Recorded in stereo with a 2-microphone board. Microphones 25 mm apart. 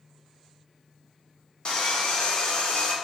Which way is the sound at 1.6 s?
45° left (ahead or behind).